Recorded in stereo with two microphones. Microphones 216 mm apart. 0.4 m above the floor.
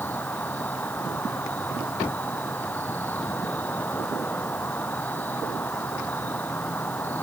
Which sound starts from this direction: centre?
An insect, at 0.0 s.